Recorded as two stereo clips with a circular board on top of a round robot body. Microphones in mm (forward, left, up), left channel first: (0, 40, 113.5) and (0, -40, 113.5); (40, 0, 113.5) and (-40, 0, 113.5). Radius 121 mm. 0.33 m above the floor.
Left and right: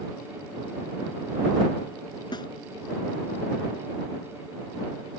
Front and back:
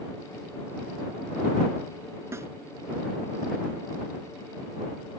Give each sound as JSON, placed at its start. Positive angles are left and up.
{"t": 2.3, "sound": "a snare drum", "azimuth_deg": 120}